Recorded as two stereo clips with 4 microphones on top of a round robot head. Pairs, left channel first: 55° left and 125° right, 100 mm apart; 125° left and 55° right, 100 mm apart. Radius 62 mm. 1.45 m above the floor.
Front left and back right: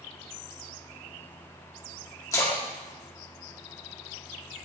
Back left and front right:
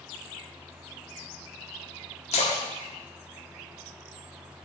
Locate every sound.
2.3 s a splash: 115° left, 1.6 m